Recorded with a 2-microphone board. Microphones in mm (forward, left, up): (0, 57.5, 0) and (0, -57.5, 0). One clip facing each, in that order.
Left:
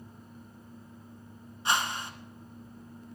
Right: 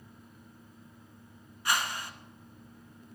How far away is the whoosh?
About 1.1 m.